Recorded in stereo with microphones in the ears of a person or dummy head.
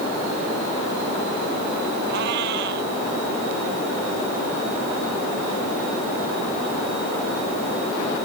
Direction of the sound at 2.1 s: 75° right (ahead or behind).